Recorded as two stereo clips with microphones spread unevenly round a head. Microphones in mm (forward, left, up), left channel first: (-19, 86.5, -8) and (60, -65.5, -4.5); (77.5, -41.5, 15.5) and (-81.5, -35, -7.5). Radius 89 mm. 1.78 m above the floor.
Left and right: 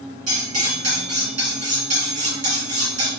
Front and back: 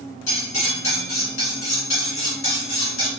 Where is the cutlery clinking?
30° right, 2 m.